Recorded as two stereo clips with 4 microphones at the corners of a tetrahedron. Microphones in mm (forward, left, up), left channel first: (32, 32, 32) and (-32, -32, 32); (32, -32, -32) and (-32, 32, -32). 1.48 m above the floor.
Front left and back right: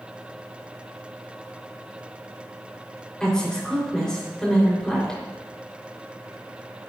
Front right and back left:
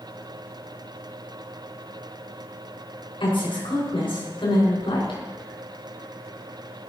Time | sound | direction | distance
3.2 | a woman speaking | 35° right | 5.5 m